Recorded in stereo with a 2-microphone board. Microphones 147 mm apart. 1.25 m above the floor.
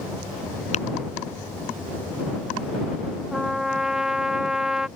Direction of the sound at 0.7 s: 55° left (ahead or behind).